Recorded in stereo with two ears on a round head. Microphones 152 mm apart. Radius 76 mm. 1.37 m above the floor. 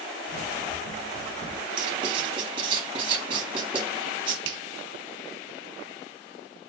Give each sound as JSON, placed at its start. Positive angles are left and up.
{"t": 0.3, "sound": "running footsteps", "side_deg": 65, "distance_m": 3.0}
{"t": 1.8, "sound": "writing", "side_deg": -30, "distance_m": 1.1}
{"t": 4.5, "sound": "a finger snap", "side_deg": -80, "distance_m": 0.6}